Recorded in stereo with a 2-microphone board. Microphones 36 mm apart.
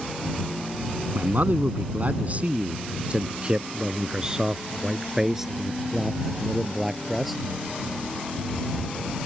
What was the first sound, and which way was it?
A man speaking, 60° right (ahead or behind).